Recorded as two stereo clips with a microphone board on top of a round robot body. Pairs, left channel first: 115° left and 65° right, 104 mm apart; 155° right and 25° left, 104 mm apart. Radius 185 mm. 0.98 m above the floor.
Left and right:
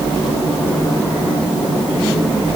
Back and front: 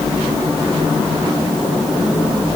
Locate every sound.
Only background noise.